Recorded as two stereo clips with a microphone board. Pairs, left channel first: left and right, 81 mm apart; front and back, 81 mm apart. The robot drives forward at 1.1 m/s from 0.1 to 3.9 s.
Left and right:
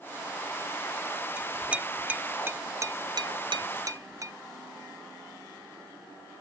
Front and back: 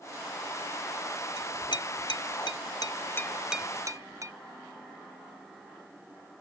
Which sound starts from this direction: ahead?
A clink, at 1.4 s.